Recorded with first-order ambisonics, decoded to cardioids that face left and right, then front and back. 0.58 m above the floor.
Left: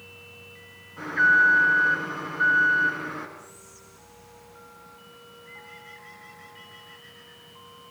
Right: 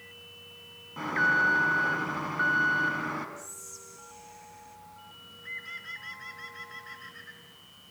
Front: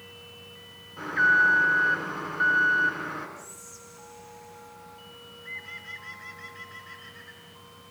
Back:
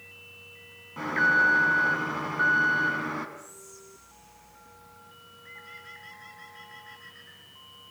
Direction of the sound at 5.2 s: 90° right.